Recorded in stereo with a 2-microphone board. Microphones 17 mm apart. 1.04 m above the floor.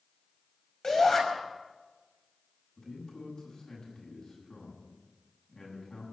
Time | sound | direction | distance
0.8 | a shout | 35° left (ahead or behind) | 5 m
2.8 | a man speaking | 55° left (ahead or behind) | 8.5 m